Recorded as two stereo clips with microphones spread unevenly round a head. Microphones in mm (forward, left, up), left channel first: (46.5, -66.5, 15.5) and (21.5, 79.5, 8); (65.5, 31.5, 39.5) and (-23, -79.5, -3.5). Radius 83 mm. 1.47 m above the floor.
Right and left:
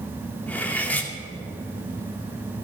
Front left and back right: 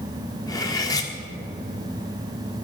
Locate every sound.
0.5 s cutlery clinking: 5° right, 1.9 m